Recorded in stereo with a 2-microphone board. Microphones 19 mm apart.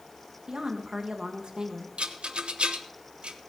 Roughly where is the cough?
I don't hear a cough.